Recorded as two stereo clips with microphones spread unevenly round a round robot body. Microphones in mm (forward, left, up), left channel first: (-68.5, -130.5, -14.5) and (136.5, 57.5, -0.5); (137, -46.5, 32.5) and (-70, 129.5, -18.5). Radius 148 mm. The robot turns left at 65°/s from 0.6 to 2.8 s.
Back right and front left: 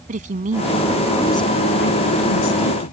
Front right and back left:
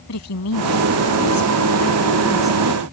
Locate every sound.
0.1 s a woman speaking: 15° right; by 2.9 s 160° right